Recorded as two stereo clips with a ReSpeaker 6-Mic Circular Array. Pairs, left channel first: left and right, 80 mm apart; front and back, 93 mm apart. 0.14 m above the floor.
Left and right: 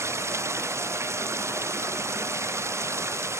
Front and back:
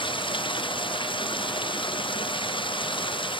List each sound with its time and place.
0.0 s running water: 35° right